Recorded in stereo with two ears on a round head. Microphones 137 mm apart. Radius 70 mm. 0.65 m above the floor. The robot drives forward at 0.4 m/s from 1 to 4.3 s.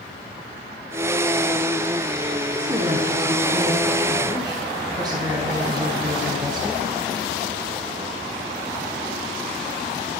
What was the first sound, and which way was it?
A woman speaking, 20° right (ahead or behind).